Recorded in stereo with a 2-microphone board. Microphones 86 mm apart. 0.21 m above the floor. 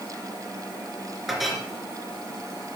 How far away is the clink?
About 2.5 m.